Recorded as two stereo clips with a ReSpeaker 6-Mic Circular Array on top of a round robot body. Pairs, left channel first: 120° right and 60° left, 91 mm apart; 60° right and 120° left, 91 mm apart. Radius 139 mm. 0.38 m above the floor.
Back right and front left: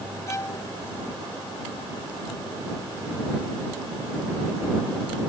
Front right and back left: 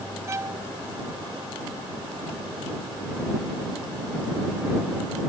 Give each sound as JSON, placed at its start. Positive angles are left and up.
{"t": 0.3, "sound": "a violin", "azimuth_deg": 180}